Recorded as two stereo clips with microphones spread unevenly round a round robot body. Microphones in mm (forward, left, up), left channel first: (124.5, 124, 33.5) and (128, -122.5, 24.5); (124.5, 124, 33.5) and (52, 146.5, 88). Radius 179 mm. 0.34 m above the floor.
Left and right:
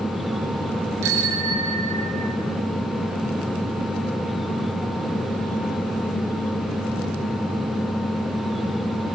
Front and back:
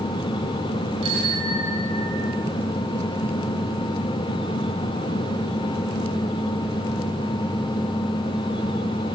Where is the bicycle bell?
140° right, 4 m; by 2.4 s 125° right, 4.5 m.